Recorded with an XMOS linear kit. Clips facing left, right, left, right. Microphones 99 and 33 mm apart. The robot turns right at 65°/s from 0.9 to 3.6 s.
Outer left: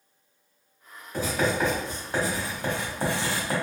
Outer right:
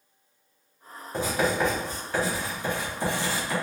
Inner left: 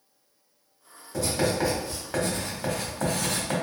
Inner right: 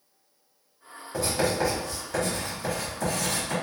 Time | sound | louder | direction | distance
1.1 | writing | even, even | 30° right | 1.3 m